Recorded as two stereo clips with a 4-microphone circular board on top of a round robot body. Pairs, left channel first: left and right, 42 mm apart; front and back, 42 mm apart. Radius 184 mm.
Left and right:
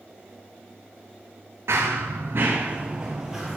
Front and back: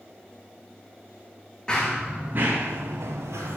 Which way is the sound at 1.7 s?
75° right.